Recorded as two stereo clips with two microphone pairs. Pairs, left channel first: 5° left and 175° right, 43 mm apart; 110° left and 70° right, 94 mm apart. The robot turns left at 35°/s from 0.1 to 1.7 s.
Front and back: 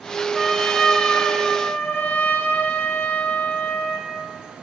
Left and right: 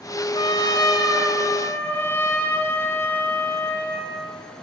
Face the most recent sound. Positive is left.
turn(degrees=45)